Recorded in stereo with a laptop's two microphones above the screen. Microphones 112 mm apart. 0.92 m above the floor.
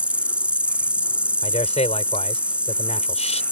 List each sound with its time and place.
0.0 s an insect: 10° right (ahead or behind)
1.4 s a man speaking: 75° left (ahead or behind)